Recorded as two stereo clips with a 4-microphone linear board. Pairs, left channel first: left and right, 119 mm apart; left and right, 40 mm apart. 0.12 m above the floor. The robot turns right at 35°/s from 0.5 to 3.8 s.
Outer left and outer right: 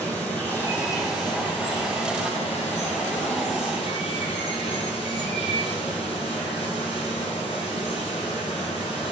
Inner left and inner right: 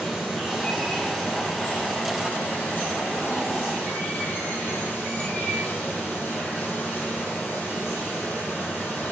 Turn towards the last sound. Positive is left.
turn(degrees=130)